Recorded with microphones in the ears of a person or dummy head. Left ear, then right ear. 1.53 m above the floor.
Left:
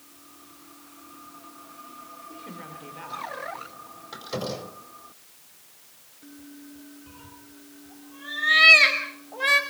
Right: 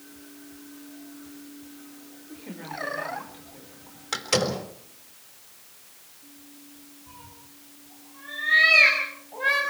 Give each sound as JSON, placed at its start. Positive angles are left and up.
{"t": 2.3, "sound": "a woman speaking", "side_deg": 10, "distance_m": 4.5}
{"t": 4.1, "sound": "a door slam", "side_deg": -70, "distance_m": 4.5}
{"t": 7.1, "sound": "a cat meowing", "side_deg": 40, "distance_m": 5.0}